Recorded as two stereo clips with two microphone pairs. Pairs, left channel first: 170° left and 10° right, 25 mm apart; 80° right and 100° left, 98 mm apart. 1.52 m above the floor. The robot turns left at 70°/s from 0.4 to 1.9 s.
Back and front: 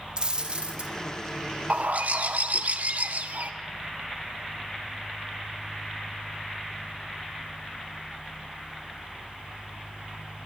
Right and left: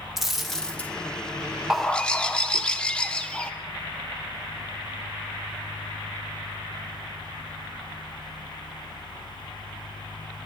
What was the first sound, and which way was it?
A dropped coin, 15° left.